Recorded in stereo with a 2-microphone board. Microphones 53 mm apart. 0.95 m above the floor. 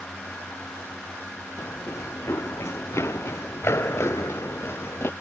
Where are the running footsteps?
60° left (ahead or behind); by 5.1 s 50° left (ahead or behind).